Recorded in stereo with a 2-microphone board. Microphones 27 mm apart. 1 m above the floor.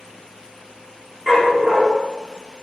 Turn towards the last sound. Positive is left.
turn(degrees=-20)  # may be behind; listen again after turning